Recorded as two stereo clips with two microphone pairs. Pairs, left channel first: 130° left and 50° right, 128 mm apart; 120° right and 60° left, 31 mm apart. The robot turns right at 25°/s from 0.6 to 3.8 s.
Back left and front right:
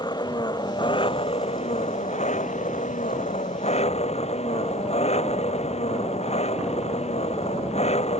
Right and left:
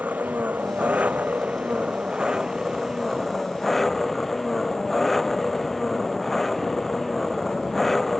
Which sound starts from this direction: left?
An engine running, at 0.0 s.